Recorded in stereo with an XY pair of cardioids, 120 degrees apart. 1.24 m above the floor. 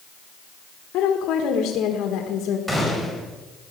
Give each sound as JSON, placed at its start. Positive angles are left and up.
{"t": 0.9, "sound": "a woman speaking", "azimuth_deg": 65, "distance_m": 1.6}
{"t": 2.7, "sound": "a gunshot", "azimuth_deg": -5, "distance_m": 4.5}